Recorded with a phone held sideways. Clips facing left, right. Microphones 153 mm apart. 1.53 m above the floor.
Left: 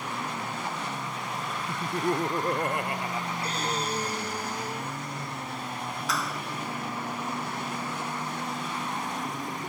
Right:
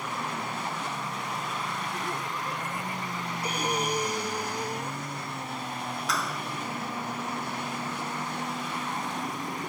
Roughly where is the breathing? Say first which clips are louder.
Right 4 dB; centre.